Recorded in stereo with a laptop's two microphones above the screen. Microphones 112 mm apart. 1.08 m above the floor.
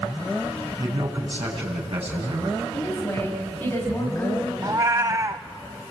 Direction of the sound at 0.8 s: 65° right (ahead or behind).